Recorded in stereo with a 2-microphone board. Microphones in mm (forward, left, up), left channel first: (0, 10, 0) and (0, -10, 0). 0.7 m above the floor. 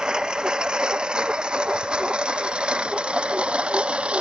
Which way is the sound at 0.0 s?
45° right (ahead or behind).